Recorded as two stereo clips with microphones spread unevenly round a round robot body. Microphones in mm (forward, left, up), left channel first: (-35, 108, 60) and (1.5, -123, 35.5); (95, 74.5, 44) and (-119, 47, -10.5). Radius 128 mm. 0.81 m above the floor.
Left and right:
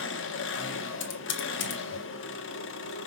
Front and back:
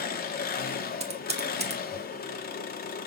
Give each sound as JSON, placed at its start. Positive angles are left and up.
{"t": 0.0, "sound": "an engine running", "azimuth_deg": 60, "distance_m": 1.3}
{"t": 1.0, "sound": "typing on a keyboard", "azimuth_deg": 135, "distance_m": 1.6}